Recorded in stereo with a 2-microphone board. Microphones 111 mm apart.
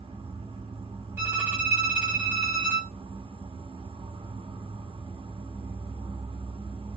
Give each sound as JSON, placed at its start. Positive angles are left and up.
{"t": 0.0, "sound": "an insect", "side_deg": -55, "distance_m": 0.7}
{"t": 1.2, "sound": "a violin", "side_deg": -20, "distance_m": 1.4}